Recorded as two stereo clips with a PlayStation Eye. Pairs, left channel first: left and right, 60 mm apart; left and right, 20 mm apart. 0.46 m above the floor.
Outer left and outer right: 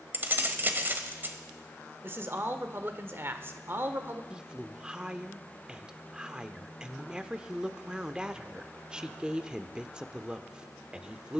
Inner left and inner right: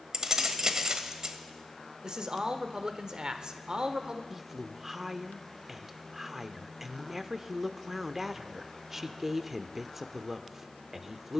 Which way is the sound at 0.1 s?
35° right (ahead or behind).